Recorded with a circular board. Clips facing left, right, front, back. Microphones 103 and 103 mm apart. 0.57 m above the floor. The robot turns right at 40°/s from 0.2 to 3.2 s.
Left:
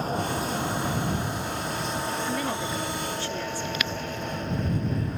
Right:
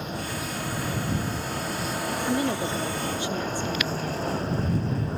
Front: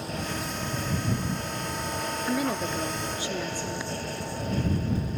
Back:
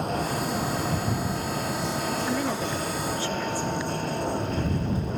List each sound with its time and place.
0.0 s a vehicle: 145° left; by 5.2 s 150° right
2.3 s a woman speaking: 80° right; by 3.9 s 45° right